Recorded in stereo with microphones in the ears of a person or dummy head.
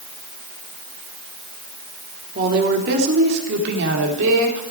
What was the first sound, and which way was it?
A woman speaking, 50° right (ahead or behind).